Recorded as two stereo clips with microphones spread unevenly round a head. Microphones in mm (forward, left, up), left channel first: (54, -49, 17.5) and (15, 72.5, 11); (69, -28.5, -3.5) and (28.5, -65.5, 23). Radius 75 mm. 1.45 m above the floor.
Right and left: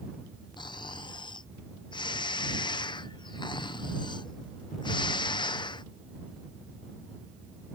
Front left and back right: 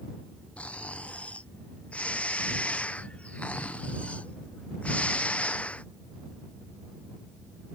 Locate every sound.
0.6 s snoring: 15° right